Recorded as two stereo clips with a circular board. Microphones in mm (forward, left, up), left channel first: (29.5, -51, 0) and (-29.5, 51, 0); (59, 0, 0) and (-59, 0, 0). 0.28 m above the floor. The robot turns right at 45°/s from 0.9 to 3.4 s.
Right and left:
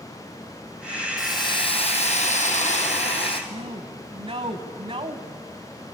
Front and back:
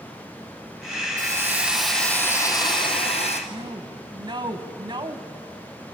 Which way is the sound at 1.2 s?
120° right.